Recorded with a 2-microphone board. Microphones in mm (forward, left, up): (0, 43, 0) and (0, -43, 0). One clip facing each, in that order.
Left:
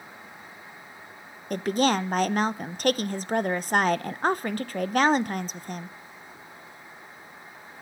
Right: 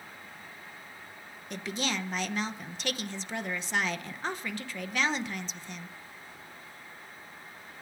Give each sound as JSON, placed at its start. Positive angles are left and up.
{"t": 1.5, "sound": "a woman speaking", "side_deg": 50, "distance_m": 0.7}